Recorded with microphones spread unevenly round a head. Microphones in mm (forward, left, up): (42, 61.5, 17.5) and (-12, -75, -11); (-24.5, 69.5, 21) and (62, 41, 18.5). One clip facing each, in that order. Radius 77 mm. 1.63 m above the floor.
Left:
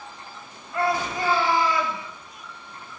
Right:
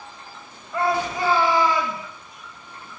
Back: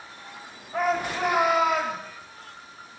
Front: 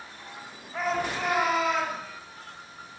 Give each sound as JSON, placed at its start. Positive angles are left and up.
{"t": 0.7, "sound": "a shout", "azimuth_deg": -130, "distance_m": 8.0}